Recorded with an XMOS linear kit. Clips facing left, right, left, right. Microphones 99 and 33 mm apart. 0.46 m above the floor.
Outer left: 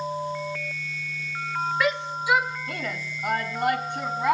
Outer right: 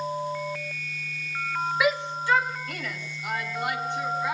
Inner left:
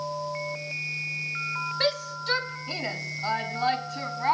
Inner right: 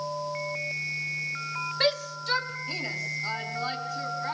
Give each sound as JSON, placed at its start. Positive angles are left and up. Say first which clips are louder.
{"t": 1.8, "sound": "a shout", "louder": "outer right 3 dB, inner right 3 dB", "side_deg": -5, "distance_m": 1.9}